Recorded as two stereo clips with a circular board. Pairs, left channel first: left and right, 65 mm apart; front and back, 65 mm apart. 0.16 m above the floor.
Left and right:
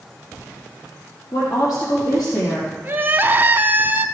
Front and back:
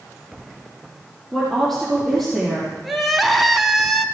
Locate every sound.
1.3 s a woman speaking: 85° left, 4.5 m
2.8 s crying: 90° right, 0.6 m